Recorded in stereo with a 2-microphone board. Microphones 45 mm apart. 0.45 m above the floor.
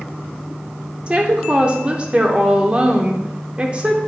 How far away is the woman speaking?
About 0.8 m.